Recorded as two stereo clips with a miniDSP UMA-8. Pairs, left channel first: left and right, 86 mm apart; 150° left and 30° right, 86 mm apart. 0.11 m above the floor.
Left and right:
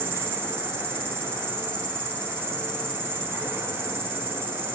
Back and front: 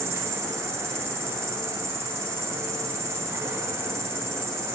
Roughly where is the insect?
Ahead right.